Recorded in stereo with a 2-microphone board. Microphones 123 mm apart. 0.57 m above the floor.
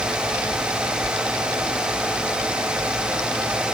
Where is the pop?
I don't hear a pop.